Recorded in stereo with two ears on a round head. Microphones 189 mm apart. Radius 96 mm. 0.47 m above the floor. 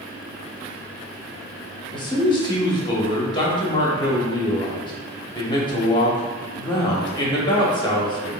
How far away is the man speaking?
About 0.9 m.